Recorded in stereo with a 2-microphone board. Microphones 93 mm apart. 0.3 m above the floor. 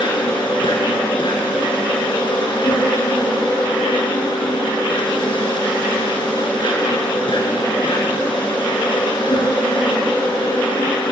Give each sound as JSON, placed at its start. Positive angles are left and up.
{"t": 0.0, "sound": "an insect", "side_deg": 60, "distance_m": 5.5}